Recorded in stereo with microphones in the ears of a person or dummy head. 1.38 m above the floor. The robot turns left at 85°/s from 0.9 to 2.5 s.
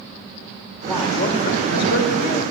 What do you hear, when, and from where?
0.9 s a woman speaking: 175° left, 2 m; by 2.5 s 40° left, 2 m